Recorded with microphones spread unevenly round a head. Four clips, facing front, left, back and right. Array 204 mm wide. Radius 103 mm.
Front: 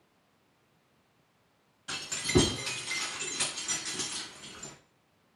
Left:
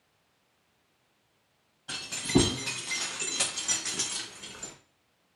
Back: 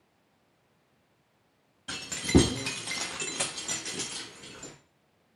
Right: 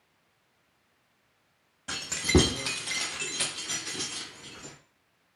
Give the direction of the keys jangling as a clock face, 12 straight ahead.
4 o'clock.